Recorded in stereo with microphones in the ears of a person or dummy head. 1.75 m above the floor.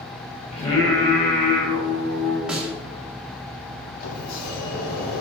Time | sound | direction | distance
0.5 | singing | 40° left (ahead or behind) | 4 m
2.5 | a snare drum | centre (ahead or behind) | 2.5 m
4.0 | a sliding door | 50° left (ahead or behind) | 2.5 m